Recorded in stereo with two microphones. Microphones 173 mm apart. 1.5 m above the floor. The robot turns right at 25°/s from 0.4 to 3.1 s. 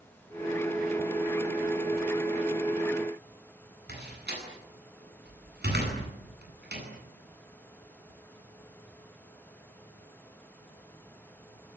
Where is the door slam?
70° right (ahead or behind), 9.5 m.